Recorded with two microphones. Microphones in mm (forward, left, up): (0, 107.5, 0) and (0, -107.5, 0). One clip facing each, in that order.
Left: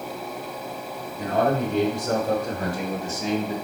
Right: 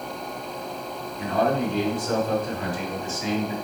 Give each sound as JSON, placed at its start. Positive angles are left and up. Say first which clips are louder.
{"t": 1.2, "sound": "a man speaking", "louder": "left 1 dB", "side_deg": 50, "distance_m": 3.5}